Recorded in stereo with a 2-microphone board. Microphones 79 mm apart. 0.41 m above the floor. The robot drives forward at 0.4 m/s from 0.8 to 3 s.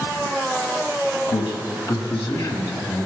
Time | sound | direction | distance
1.3 | a man speaking | 70° left (ahead or behind) | 2.5 m